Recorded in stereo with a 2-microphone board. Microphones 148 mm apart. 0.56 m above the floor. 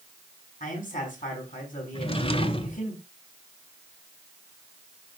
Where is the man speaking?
70° left (ahead or behind), 6 m.